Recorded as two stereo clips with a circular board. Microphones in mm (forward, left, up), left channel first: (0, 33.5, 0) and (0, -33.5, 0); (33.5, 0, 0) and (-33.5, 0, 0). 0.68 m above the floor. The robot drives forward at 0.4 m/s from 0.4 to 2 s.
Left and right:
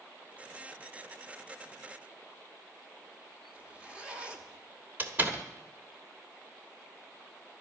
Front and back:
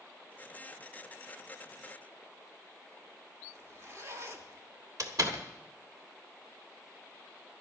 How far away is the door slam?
About 1.6 m.